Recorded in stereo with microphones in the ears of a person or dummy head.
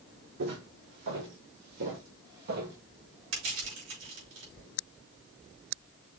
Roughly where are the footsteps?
Right.